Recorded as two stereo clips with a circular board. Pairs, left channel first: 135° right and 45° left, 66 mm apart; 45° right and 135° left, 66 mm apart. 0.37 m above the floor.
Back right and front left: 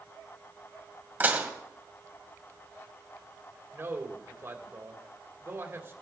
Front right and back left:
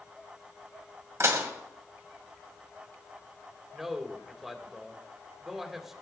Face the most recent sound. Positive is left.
turn(degrees=55)